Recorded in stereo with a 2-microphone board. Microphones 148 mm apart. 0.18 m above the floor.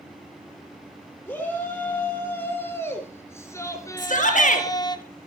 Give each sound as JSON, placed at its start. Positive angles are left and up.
{"t": 1.3, "sound": "a shout", "side_deg": 10, "distance_m": 4.5}
{"t": 4.0, "sound": "a shout", "side_deg": 60, "distance_m": 3.0}